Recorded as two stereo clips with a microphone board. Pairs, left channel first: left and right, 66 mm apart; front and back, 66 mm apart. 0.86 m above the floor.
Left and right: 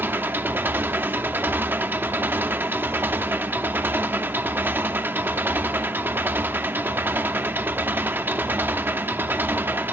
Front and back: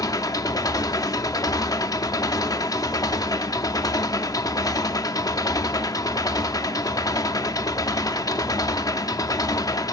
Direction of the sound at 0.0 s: 30° right.